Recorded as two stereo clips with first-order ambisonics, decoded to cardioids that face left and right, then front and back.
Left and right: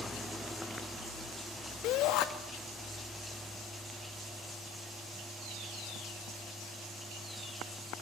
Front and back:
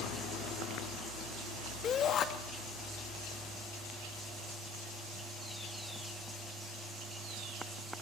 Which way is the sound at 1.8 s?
55° left.